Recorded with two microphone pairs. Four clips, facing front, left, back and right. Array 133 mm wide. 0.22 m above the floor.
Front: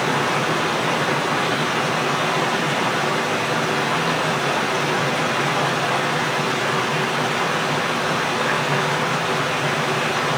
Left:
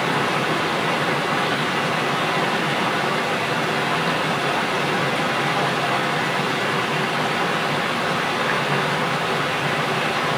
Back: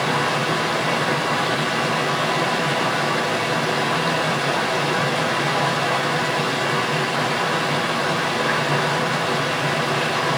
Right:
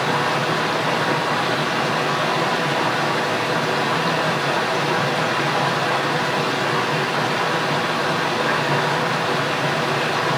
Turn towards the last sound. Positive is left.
turn(degrees=-100)